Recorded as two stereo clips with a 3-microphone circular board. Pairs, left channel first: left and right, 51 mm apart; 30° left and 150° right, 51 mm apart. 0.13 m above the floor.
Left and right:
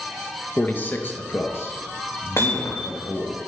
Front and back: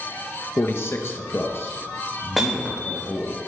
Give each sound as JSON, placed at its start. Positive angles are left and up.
{"t": 0.6, "sound": "a man speaking", "azimuth_deg": 45, "distance_m": 1.8}
{"t": 2.4, "sound": "hammering", "azimuth_deg": 120, "distance_m": 5.0}